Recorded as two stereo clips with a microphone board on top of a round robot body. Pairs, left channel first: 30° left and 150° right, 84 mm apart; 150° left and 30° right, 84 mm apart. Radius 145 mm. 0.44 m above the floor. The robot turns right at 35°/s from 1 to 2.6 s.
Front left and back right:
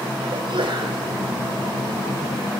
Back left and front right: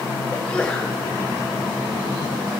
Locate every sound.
0.3 s a sneeze: 135° right, 3 m; by 1.0 s 130° right, 3 m